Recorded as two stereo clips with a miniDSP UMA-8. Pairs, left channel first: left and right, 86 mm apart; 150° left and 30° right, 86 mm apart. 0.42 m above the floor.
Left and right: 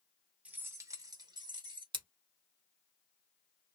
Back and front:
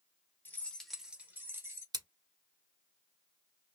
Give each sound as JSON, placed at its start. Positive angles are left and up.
{"t": 0.5, "sound": "keys jangling", "azimuth_deg": -160, "distance_m": 0.7}
{"t": 1.9, "sound": "scissors", "azimuth_deg": -65, "distance_m": 0.9}